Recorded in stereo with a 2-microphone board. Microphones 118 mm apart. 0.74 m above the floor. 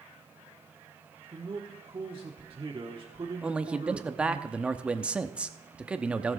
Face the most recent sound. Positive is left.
turn(degrees=-10)  # may be behind; listen again after turning